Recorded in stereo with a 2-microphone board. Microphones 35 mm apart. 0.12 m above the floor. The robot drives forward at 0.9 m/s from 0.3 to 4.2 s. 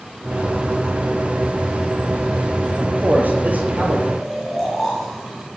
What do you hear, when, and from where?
2.8 s a man speaking: 60° right (ahead or behind), 2 m; by 4.0 s 45° right (ahead or behind), 2.5 m
4.1 s snoring: centre (ahead or behind), 5.5 m